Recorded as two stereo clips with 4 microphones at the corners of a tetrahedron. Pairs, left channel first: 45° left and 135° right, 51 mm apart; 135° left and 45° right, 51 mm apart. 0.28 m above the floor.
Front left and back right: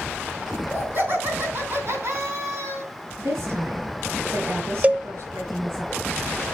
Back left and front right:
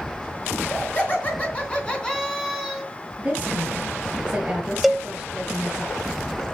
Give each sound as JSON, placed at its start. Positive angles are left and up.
{"t": 0.5, "sound": "laughter", "azimuth_deg": 180, "distance_m": 4.5}
{"t": 3.2, "sound": "a woman speaking", "azimuth_deg": -110, "distance_m": 4.5}
{"t": 4.8, "sound": "a cowbell", "azimuth_deg": -130, "distance_m": 0.8}